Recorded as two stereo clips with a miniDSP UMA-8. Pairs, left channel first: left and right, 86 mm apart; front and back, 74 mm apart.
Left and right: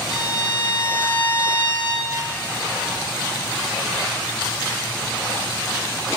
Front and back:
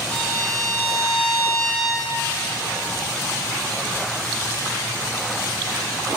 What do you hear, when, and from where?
0.1 s a violin: 95° right, 3.5 m